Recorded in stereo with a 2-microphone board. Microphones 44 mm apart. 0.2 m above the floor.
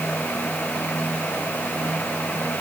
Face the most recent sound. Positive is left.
No sound to turn to.